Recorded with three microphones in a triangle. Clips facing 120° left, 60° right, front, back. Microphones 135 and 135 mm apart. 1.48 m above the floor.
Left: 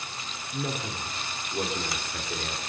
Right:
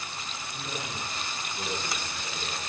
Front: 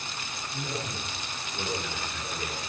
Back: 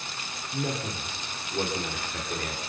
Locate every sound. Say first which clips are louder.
0.5 s a man speaking: left 6 dB, back 5 dB; 145° left, 5 m